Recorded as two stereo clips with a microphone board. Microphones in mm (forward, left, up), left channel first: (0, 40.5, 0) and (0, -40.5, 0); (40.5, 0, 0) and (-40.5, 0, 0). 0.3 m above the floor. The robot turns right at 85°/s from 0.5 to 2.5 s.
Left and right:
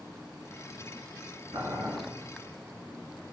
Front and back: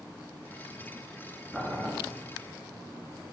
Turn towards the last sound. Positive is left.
turn(degrees=-15)